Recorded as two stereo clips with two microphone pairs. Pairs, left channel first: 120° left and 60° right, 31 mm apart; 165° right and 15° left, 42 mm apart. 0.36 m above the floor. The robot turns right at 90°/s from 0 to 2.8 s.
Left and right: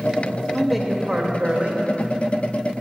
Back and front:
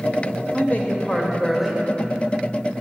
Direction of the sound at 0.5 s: 165° right.